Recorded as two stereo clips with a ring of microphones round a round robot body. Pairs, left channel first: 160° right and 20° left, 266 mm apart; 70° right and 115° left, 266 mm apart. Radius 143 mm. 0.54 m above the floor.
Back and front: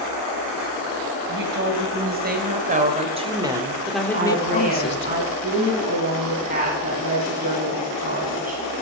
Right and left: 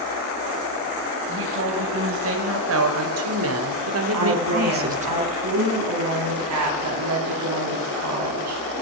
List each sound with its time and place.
1.3 s a woman speaking: 70° left, 4.5 m; by 5.1 s 175° left, 1.7 m
4.1 s a woman speaking: 85° left, 5.5 m